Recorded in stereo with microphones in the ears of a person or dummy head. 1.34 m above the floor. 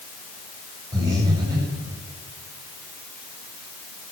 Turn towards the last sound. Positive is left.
turn(degrees=-20)  # may be behind; listen again after turning